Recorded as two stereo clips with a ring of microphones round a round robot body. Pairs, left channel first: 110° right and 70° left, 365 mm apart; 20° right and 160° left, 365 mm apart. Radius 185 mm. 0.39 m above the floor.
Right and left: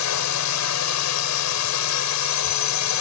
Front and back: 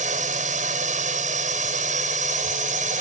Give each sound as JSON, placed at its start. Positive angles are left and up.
{"t": 0.0, "sound": "a drone", "azimuth_deg": -140}